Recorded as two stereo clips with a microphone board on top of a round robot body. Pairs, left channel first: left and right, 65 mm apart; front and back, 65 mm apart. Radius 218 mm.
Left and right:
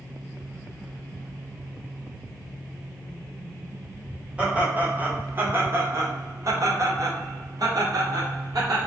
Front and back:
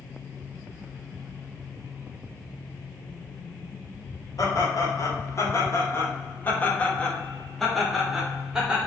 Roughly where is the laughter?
Ahead.